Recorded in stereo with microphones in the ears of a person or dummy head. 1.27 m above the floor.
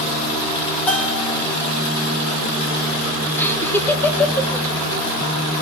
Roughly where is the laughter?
Left.